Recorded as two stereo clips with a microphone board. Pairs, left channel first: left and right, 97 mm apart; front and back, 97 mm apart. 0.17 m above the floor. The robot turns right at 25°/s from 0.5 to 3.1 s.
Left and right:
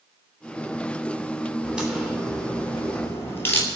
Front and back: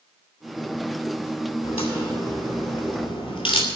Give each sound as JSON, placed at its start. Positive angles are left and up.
{"t": 1.6, "sound": "a crack", "azimuth_deg": -10, "distance_m": 2.5}